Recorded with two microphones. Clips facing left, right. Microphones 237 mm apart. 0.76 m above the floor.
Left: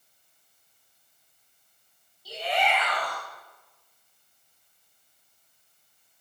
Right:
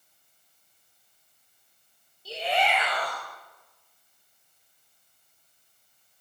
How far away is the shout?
About 3.5 m.